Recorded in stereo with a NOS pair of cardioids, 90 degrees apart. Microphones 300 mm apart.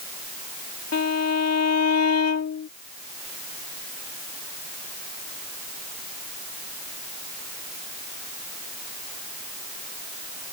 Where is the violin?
55° left.